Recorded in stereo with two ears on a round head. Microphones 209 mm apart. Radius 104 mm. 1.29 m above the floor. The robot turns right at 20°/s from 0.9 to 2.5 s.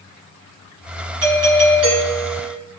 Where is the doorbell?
70° right (ahead or behind), 3 m; by 2.6 s 55° right (ahead or behind), 3 m.